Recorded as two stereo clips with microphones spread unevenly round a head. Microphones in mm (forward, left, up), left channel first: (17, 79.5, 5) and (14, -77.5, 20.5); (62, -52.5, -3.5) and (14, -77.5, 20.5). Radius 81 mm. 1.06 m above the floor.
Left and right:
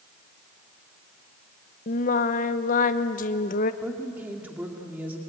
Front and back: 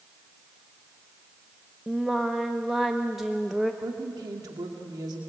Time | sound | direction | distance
1.9 | singing | 105° left | 0.8 m
3.8 | a woman speaking | 170° right | 2 m